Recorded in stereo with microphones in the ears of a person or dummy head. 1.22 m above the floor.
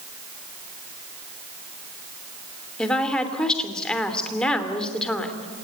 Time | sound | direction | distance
2.8 | a woman speaking | 5° left (ahead or behind) | 3 m